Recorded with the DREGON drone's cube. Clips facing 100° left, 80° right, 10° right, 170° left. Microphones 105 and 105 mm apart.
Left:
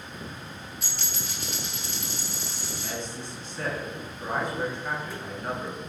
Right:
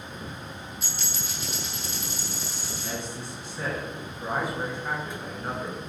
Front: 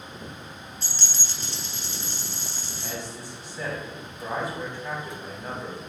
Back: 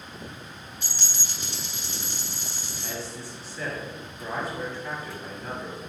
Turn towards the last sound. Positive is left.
turn(degrees=-35)